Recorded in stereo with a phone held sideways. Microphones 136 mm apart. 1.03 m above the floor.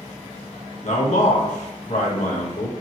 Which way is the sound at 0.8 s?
60° left (ahead or behind).